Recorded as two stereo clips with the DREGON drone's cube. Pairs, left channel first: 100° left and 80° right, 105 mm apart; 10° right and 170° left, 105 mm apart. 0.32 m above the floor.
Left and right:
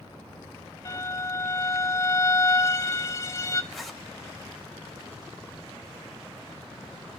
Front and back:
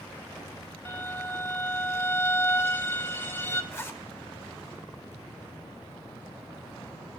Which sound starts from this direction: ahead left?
A violin, at 0.8 s.